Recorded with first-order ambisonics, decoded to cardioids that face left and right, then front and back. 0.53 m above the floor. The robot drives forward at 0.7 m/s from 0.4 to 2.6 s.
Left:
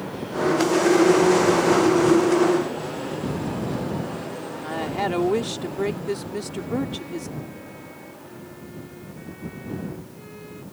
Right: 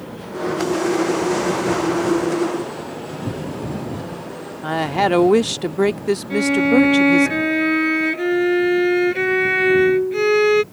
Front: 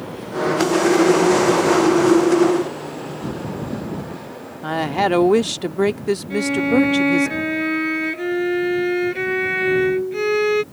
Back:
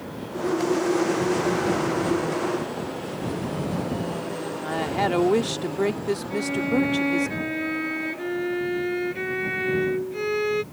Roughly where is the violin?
Right.